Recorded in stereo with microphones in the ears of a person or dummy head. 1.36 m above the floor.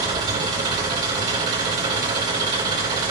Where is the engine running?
25° right (ahead or behind), 1.9 m.